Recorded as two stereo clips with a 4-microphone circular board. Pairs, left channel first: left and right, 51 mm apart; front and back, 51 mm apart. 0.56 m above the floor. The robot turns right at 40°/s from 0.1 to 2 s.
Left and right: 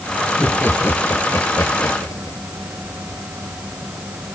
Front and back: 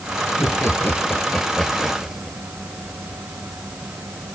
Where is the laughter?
25° left; by 2.4 s 95° left.